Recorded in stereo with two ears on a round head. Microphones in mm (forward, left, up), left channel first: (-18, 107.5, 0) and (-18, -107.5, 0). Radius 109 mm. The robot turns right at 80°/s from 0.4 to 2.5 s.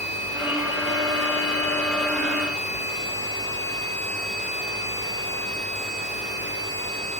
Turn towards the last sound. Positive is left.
No sound to turn to.